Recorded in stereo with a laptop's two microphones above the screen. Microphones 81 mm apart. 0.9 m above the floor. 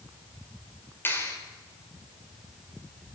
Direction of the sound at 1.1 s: 25° left (ahead or behind).